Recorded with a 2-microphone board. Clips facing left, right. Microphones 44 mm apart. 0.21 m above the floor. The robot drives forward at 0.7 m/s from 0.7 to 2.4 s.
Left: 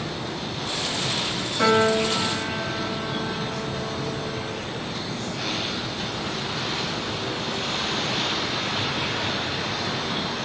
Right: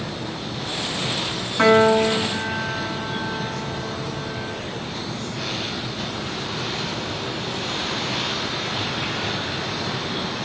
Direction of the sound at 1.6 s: 45° right (ahead or behind).